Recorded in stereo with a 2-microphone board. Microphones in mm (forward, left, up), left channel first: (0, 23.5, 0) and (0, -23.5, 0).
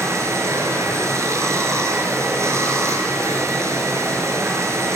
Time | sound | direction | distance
0.0 | running water | 85° right | 5 m